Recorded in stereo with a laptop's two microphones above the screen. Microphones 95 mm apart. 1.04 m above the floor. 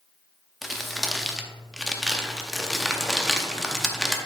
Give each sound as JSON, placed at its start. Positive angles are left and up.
{"t": 0.6, "sound": "crumpling", "side_deg": 0, "distance_m": 0.6}